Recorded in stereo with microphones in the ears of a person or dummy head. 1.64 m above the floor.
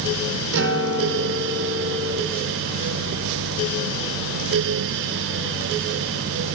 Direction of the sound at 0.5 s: 65° right (ahead or behind).